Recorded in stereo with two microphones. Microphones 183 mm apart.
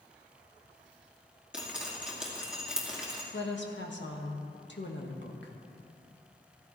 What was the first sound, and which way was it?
Dripping, 5° right (ahead or behind).